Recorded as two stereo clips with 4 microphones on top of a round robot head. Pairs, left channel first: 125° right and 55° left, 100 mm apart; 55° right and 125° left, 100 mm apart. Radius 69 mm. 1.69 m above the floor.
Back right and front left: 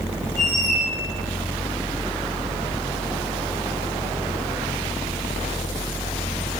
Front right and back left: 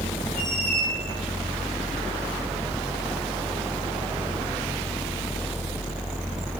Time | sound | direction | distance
0.4 | a squeak | 130° right | 1.0 m